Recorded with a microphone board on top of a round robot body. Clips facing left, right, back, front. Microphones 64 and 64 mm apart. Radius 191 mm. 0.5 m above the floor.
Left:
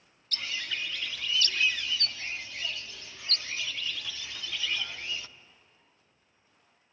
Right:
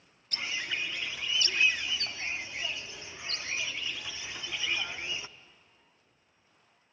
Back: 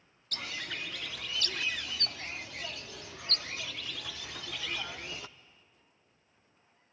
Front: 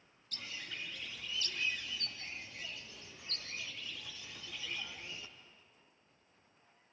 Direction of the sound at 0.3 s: 160° right.